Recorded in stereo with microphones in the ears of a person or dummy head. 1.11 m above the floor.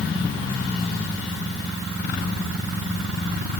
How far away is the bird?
I don't hear a bird.